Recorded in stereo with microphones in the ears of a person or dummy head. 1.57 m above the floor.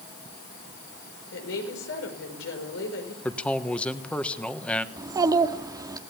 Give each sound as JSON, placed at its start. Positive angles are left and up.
{"t": 1.3, "sound": "a woman speaking", "side_deg": 80, "distance_m": 6.0}
{"t": 3.2, "sound": "a man speaking", "side_deg": 5, "distance_m": 1.3}
{"t": 5.0, "sound": "a child speaking", "side_deg": -15, "distance_m": 1.5}